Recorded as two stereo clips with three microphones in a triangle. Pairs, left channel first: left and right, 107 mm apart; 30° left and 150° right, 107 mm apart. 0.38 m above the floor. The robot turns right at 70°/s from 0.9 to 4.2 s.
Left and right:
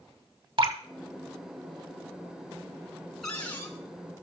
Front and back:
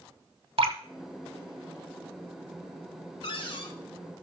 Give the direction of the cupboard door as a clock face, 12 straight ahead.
12 o'clock.